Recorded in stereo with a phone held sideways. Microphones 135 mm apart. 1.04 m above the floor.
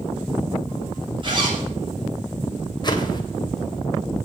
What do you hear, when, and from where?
1.2 s a zipper: 40° right (ahead or behind), 7 m
2.8 s a whoosh: 35° left (ahead or behind), 2.5 m